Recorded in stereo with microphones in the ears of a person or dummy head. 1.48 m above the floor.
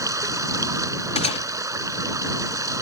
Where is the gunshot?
40° left (ahead or behind).